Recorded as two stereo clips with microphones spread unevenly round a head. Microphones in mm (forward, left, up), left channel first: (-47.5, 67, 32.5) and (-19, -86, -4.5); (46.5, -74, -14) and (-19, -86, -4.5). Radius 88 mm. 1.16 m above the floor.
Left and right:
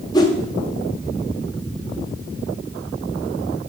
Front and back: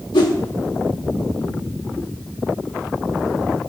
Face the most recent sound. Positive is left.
turn(degrees=40)